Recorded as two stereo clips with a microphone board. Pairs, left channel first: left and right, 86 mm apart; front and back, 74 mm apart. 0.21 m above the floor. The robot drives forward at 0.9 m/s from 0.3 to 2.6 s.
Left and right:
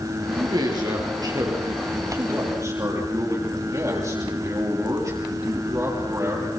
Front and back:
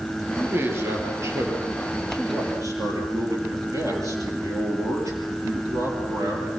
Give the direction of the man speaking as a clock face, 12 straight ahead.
4 o'clock.